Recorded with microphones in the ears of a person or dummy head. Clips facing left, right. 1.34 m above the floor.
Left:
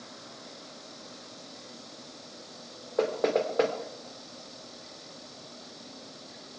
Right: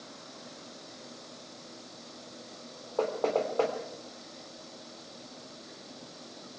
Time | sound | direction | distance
3.0 | knocking | 25° left (ahead or behind) | 3 m